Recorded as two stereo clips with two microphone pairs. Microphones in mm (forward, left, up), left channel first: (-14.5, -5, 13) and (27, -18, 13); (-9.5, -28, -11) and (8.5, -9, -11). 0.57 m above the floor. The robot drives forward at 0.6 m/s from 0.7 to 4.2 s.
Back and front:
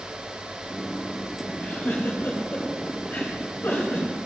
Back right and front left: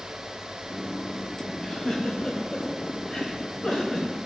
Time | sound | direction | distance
1.6 | a giggle | 175° left | 1.1 m